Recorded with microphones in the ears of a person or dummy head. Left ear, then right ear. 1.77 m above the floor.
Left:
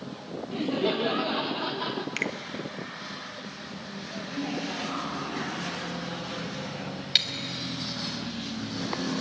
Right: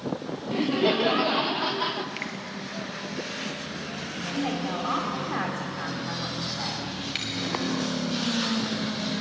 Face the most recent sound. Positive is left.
turn(degrees=40)  # may be behind; listen again after turning